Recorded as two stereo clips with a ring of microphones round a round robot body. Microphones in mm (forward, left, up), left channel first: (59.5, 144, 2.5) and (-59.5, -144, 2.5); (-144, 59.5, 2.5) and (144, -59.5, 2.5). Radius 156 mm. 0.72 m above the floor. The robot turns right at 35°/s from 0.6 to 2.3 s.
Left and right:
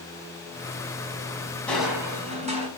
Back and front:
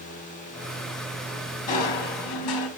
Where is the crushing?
155° left, 4 m; by 2.7 s 175° left, 4 m.